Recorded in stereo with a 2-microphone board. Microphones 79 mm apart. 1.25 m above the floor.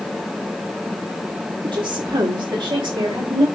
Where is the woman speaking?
85° right, 2.5 m; by 3.5 s 70° right (ahead or behind), 3 m.